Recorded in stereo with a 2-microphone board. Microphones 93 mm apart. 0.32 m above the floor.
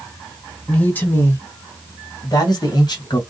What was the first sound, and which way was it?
A man speaking, 15° left (ahead or behind).